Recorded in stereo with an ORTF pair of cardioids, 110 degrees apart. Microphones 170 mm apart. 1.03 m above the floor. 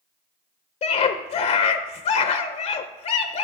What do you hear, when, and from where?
0.8 s a scream: 40° left, 0.6 m